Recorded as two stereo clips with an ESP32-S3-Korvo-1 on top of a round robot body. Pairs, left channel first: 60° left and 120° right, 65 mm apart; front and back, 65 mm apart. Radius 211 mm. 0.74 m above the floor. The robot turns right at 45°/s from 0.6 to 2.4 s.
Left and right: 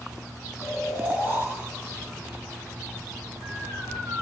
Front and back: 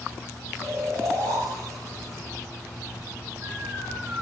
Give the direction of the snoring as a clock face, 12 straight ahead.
7 o'clock.